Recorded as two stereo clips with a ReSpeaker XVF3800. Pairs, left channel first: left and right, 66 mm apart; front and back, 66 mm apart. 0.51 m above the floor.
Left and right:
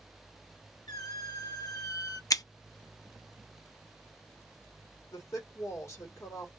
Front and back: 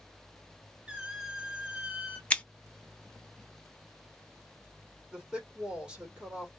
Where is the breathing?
No breathing in this recording.